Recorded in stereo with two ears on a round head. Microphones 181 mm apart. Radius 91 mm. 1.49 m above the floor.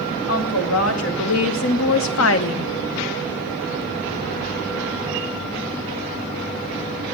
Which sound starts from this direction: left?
A woman speaking, at 0.3 s.